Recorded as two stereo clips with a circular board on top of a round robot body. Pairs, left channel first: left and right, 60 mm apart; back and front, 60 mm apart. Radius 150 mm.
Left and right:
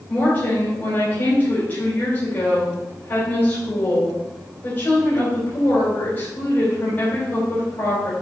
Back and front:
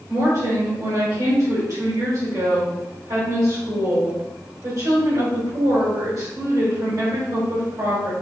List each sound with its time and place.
0.1 s a woman speaking: 35° left, 3.5 m